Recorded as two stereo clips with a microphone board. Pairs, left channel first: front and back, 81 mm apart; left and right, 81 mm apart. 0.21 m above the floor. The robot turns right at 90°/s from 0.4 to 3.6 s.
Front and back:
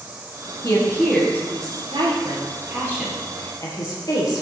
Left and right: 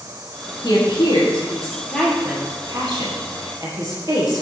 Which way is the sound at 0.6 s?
45° left.